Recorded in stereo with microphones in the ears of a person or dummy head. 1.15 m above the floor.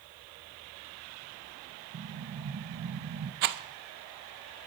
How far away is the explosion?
About 0.6 m.